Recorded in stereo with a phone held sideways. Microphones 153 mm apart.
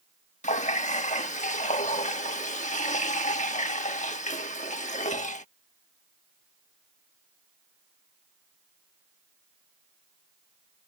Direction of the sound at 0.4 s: 50° left (ahead or behind).